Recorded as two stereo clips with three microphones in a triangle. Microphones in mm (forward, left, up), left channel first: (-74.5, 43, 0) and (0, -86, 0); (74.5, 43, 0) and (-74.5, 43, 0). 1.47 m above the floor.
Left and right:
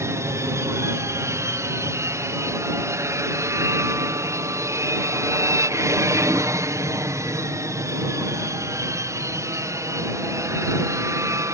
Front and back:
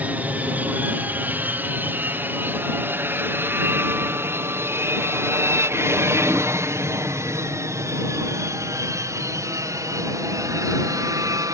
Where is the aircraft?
110° right; by 11.5 s 120° right.